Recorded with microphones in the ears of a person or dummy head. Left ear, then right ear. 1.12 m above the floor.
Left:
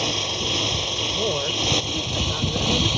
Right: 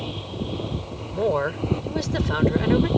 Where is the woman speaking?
60° right (ahead or behind).